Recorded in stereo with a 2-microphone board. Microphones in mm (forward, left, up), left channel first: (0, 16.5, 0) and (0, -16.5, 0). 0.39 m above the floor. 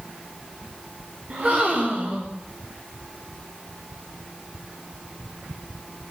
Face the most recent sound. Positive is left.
turn(degrees=-40)  # may be behind; listen again after turning